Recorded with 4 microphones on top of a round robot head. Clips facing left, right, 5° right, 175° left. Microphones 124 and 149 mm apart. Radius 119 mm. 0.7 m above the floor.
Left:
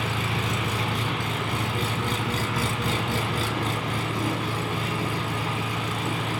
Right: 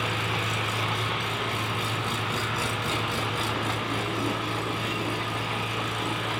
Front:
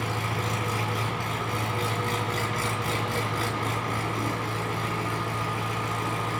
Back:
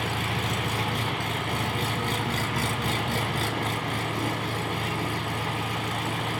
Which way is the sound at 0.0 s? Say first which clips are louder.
Left 1 dB, even; 120° left.